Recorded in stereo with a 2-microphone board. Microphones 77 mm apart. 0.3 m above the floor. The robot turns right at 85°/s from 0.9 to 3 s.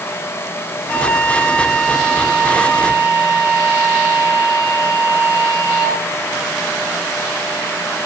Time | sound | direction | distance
0.9 | a flute | 110° left | 2.5 m